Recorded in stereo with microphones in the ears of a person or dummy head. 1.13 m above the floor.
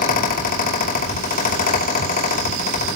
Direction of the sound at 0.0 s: 40° left (ahead or behind).